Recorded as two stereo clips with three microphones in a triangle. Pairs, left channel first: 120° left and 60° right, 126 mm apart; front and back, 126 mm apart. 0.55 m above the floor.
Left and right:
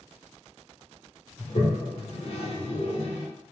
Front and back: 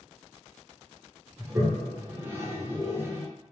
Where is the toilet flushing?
115° left, 1.0 m.